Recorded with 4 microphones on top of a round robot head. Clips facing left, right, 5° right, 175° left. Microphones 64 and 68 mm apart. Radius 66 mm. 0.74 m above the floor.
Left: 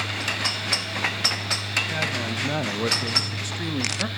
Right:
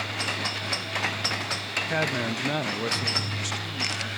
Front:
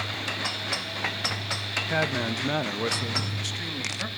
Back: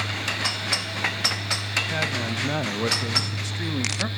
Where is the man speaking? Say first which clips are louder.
Right 1 dB, front 4 dB; 60° right, 0.8 m; by 4.1 s 120° left, 1.3 m.